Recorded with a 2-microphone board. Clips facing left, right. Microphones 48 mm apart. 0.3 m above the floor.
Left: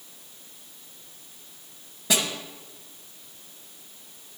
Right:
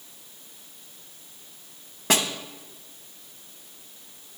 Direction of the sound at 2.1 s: 55° right (ahead or behind).